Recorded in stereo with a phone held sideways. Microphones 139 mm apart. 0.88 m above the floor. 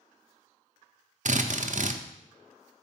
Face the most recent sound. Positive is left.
turn(degrees=-65)  # may be behind; listen again after turning